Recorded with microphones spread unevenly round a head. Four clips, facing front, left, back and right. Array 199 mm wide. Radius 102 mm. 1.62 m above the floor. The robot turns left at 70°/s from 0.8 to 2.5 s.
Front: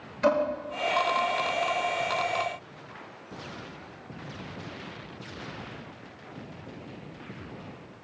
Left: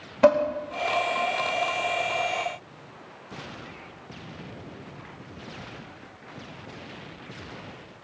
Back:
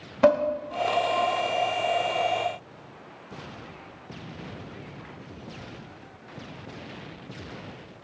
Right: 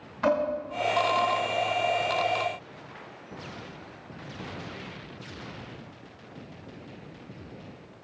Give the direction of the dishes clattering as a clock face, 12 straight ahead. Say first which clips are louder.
Left 6 dB, back 4 dB; 7 o'clock.